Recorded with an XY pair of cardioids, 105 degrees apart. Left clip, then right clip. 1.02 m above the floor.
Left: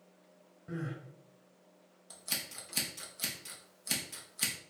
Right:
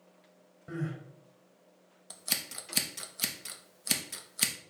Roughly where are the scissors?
Ahead right.